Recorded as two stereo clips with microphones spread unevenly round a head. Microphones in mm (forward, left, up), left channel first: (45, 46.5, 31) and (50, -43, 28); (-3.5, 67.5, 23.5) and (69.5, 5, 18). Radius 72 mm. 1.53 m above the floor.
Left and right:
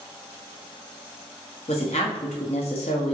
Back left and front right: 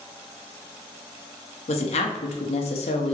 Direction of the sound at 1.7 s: 140° left.